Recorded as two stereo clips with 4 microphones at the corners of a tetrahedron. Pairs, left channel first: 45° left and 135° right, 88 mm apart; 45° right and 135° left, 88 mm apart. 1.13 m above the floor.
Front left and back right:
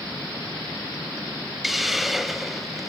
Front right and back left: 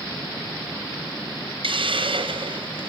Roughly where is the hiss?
Behind left.